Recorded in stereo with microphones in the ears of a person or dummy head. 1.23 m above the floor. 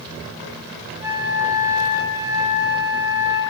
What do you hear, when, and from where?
1.0 s a flute: 20° right (ahead or behind), 0.9 m